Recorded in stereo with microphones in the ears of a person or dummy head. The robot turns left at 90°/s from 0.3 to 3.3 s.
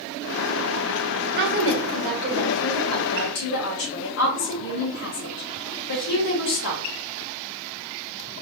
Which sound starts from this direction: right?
A woman speaking, at 1.4 s.